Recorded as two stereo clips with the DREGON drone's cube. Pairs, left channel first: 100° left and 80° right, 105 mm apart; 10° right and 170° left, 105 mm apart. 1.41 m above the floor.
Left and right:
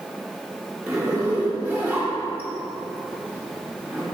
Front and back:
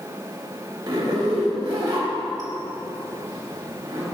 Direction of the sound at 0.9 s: 150° right.